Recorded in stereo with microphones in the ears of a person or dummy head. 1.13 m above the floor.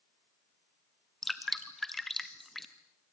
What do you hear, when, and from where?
1.2 s dripping: 5° left (ahead or behind), 1.4 m